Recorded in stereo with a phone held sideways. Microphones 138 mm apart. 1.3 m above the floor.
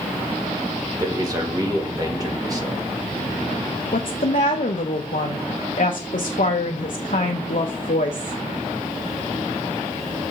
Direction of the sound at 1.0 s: 25° right (ahead or behind).